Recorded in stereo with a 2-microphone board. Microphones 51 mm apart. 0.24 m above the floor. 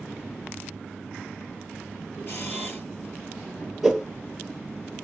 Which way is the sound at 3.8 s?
Centre (ahead or behind).